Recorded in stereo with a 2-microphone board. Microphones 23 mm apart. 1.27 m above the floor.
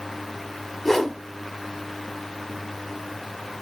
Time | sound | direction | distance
0.8 | a whoosh | 15° left (ahead or behind) | 1.3 m